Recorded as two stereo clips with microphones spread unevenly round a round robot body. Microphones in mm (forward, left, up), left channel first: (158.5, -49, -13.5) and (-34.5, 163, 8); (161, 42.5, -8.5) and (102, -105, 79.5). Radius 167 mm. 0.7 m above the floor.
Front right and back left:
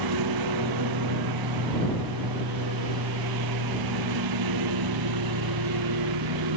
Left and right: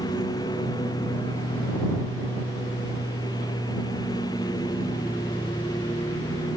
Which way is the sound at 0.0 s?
145° left.